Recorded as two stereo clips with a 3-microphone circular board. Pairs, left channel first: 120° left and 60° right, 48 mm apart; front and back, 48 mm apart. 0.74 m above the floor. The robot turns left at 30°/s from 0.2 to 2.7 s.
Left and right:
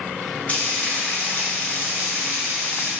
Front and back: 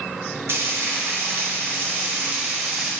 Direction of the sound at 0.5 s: 170° left.